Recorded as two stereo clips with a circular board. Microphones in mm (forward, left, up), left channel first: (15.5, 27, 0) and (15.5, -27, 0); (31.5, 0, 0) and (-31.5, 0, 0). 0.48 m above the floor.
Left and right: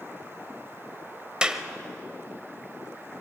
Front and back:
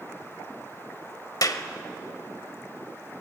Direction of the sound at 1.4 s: 10° right.